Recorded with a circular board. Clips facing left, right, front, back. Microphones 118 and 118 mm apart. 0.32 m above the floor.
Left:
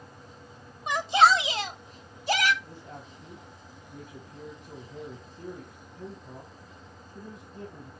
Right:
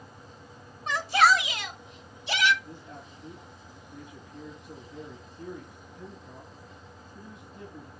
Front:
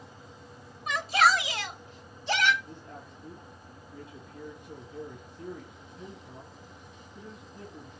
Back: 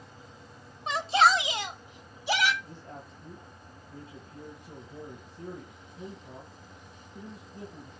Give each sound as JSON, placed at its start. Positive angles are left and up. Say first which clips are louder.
{"t": 0.9, "sound": "a shout", "louder": "left 2 dB, back 1 dB", "azimuth_deg": 150, "distance_m": 1.2}
{"t": 2.6, "sound": "a man speaking", "louder": "even, even", "azimuth_deg": 130, "distance_m": 2.5}